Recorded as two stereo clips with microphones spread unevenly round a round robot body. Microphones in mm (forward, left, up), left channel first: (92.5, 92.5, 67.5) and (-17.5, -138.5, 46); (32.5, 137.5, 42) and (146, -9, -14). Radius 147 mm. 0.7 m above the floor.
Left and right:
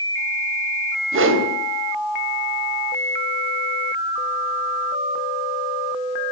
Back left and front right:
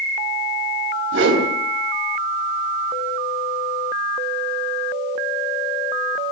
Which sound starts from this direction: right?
A whoosh, at 1.1 s.